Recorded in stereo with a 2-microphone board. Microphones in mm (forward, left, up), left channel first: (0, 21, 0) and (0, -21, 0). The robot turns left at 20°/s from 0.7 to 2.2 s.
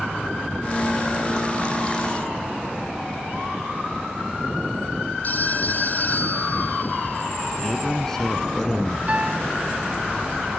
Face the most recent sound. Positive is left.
turn(degrees=-35)  # may be behind; listen again after turning